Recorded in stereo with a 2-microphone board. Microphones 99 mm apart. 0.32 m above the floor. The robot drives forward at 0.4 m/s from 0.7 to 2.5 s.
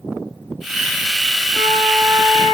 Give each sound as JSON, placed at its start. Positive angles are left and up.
{"t": 1.5, "sound": "a flute", "side_deg": 10, "distance_m": 1.4}